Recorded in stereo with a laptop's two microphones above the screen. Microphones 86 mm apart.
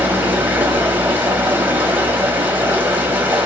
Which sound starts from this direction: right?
Running water, at 0.0 s.